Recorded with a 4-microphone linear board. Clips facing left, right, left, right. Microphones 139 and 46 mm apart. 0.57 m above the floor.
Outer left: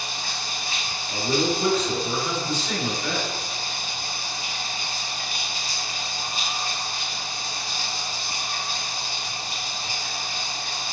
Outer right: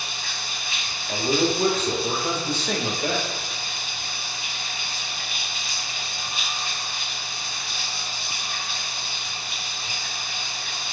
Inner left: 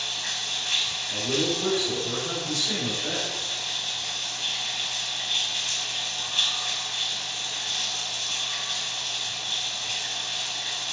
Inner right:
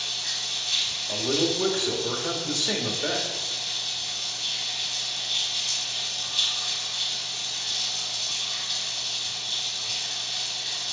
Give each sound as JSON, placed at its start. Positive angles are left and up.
{"t": 0.0, "sound": "running water", "side_deg": 40, "distance_m": 0.8}
{"t": 1.1, "sound": "a man speaking", "side_deg": -55, "distance_m": 1.8}